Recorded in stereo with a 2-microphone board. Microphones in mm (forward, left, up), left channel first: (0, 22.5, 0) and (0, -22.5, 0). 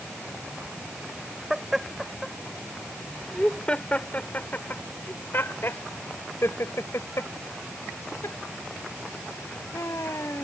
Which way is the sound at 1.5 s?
5° right (ahead or behind).